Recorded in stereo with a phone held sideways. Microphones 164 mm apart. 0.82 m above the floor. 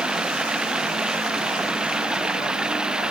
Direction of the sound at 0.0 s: 5° right (ahead or behind).